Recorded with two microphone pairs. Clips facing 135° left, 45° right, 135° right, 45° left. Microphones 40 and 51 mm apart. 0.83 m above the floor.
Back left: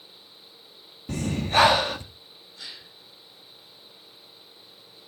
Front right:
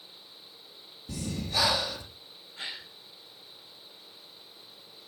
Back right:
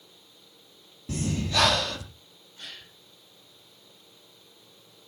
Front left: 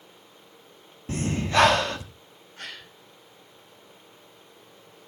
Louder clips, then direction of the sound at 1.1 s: Back left 9 dB, front left 4 dB; 95° left.